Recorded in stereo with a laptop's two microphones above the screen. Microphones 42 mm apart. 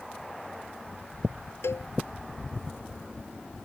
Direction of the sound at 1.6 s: 75° left (ahead or behind).